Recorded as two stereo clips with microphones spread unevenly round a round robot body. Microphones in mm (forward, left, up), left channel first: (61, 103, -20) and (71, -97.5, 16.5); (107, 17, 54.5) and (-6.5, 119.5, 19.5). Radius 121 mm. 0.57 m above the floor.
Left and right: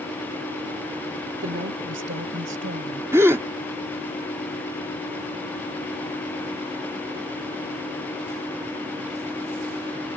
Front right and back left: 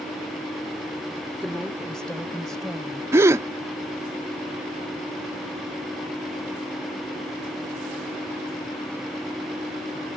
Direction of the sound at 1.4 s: 135° right.